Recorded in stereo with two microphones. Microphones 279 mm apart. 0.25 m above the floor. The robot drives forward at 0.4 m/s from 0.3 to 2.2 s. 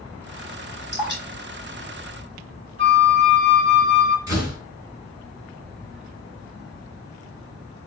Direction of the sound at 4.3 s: 60° left (ahead or behind).